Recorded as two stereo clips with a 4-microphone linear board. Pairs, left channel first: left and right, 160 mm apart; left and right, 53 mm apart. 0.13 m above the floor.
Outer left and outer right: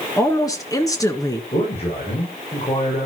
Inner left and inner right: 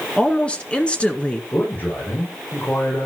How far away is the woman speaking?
About 1.7 m.